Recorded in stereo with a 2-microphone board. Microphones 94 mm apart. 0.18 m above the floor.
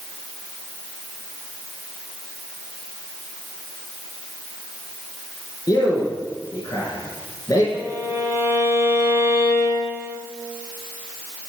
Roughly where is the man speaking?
Left.